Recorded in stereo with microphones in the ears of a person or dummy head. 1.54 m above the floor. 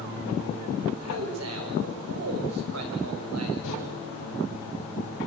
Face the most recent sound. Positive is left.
turn(degrees=65)  # may be behind; listen again after turning